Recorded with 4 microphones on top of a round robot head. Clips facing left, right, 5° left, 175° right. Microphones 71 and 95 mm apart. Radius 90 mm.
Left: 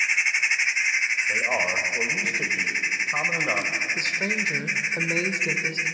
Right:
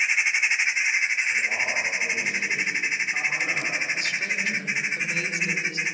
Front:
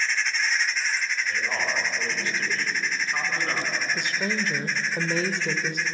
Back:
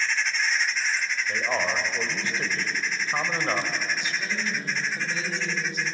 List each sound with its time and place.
1.3 s a man speaking: 120° left, 4 m
4.0 s a woman speaking: 35° left, 2.0 m